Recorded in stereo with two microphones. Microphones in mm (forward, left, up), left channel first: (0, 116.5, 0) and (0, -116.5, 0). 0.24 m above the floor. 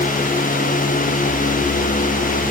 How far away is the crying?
No crying in this recording.